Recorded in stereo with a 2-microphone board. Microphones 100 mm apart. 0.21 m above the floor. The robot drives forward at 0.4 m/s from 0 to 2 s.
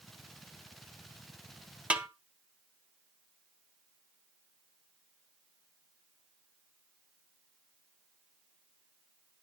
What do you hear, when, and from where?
1.9 s a snare drum: 10° right (ahead or behind), 0.6 m